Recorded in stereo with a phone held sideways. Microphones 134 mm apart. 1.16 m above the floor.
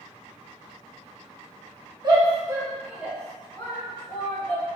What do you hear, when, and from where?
2.0 s a shout: 35° right (ahead or behind), 1.1 m; by 4.7 s 20° left (ahead or behind), 1.5 m